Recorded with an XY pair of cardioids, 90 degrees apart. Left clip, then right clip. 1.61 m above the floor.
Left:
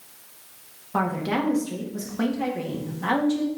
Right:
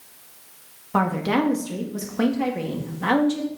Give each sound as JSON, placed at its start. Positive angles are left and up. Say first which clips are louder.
{"t": 0.9, "sound": "a woman speaking", "louder": "right 3 dB", "azimuth_deg": -40, "distance_m": 1.9}